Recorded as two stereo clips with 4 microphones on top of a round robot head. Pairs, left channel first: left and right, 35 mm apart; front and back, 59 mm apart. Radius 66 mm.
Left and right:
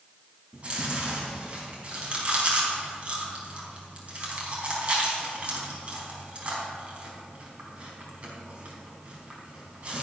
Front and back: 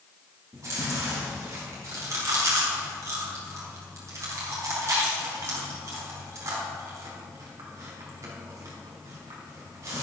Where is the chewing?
140° right, 4 m.